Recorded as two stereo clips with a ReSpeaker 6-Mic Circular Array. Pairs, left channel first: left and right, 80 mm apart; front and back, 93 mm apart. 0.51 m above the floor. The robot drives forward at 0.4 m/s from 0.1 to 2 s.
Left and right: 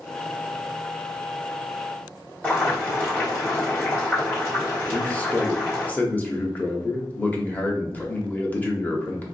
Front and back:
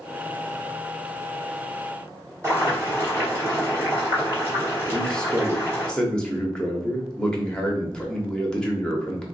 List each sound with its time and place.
2.4 s boiling: 145° left, 1.5 m
4.9 s a man speaking: 65° left, 0.7 m